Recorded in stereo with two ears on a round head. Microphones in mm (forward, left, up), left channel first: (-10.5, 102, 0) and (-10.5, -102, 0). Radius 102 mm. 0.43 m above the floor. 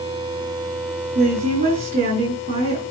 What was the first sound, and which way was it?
A woman speaking, 35° right (ahead or behind).